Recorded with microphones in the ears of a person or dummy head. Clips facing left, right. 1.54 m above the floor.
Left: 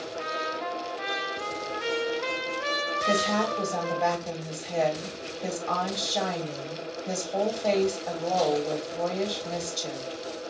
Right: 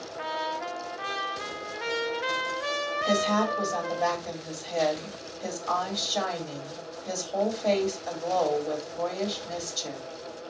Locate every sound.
0.2 s a trumpet: 10° right (ahead or behind), 0.5 m
3.0 s a woman speaking: 15° right (ahead or behind), 1.6 m